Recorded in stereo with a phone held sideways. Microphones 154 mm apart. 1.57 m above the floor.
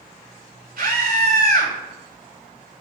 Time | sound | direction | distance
0.8 | a scream | 80° right | 3 m